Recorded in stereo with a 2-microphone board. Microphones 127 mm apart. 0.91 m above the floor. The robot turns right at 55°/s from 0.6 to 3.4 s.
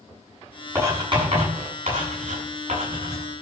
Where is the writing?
20° right (ahead or behind), 7.5 m; by 3.2 s 25° right (ahead or behind), 7.5 m.